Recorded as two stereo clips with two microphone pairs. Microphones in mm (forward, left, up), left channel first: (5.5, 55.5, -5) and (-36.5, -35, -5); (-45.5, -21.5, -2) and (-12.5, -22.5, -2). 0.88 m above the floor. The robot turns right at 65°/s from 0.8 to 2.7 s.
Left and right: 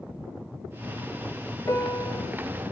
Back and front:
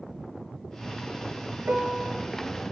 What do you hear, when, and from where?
1.7 s a piano: 5° left, 1.0 m; by 2.3 s 50° left, 1.0 m